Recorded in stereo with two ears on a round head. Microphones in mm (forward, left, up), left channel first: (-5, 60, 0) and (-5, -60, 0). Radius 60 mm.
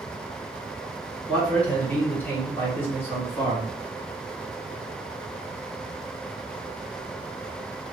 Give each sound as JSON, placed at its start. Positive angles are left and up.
{"t": 1.3, "sound": "a man speaking", "side_deg": 10, "distance_m": 1.4}